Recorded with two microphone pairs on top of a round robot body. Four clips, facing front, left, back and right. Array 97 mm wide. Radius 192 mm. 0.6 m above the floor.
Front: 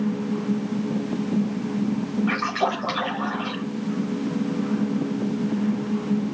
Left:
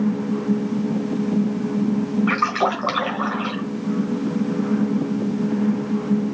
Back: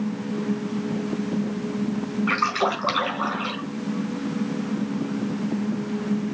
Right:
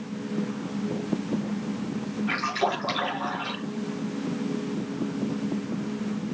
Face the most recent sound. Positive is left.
turn(degrees=105)